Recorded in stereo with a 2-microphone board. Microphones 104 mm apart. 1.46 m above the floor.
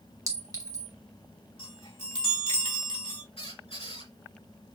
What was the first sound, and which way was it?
A clink, 35° right (ahead or behind).